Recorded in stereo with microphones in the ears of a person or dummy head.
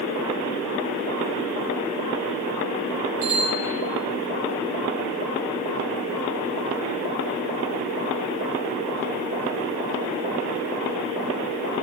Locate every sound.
3.2 s a bicycle bell: 45° right (ahead or behind), 4.5 m